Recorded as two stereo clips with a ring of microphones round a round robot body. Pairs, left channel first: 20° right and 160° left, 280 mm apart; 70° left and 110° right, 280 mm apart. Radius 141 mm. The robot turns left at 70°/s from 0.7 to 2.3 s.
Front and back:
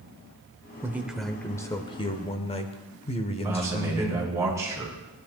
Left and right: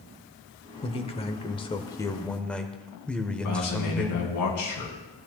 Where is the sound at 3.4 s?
80° left, 3 m.